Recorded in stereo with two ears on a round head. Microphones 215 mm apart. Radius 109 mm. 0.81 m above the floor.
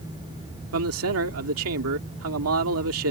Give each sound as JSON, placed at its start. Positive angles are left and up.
{"t": 0.7, "sound": "a man speaking", "side_deg": -60}